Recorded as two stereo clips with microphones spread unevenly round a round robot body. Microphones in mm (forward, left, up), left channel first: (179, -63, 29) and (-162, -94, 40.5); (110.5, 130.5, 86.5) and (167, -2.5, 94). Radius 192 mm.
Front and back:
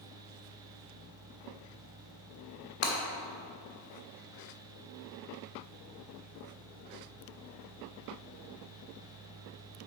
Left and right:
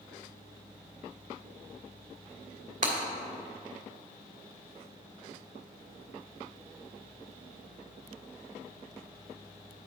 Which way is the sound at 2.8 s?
40° right.